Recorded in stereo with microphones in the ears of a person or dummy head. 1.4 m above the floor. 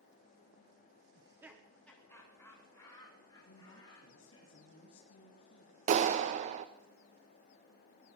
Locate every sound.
1.1 s laughter: 30° right (ahead or behind), 1.0 m; by 4.5 s 20° left (ahead or behind), 5 m
3.5 s a woman speaking: 70° left (ahead or behind), 2 m
5.9 s a clap: 45° right (ahead or behind), 0.8 m